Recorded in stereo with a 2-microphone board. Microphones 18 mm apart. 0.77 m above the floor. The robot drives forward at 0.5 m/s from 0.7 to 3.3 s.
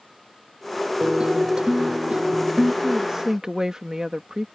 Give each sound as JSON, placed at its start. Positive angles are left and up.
{"t": 1.0, "sound": "a guitar", "side_deg": -50}
{"t": 2.8, "sound": "a woman speaking", "side_deg": -40}